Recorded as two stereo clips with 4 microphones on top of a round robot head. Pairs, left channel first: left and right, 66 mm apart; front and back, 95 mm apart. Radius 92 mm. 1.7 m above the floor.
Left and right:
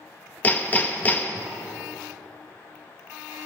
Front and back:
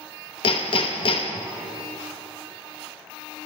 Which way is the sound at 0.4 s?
30° left.